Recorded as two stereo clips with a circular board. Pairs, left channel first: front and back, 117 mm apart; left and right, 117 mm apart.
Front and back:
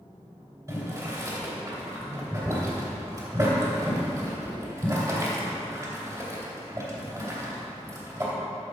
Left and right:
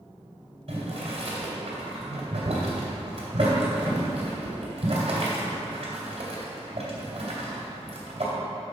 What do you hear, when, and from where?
0.7 s boiling: 120° right, 2.5 m